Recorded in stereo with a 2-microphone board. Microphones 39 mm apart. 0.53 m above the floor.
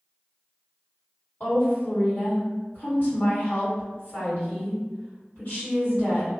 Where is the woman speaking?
45° left (ahead or behind), 1.9 m.